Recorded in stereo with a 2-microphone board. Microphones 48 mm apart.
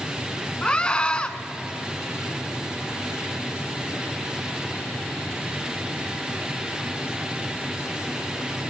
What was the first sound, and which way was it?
A scream, 25° left (ahead or behind).